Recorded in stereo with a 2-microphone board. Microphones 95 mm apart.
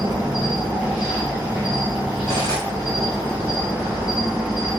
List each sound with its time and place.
0.0 s an insect: 10° right (ahead or behind), 0.9 m
2.3 s cutlery clinking: 35° left (ahead or behind), 1.1 m